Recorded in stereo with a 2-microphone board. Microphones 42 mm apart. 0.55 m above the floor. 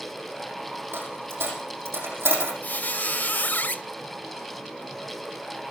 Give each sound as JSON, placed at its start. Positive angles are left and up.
{"t": 0.9, "sound": "a dropped coin", "side_deg": -75, "distance_m": 6.0}
{"t": 2.6, "sound": "a squeak", "side_deg": 45, "distance_m": 0.5}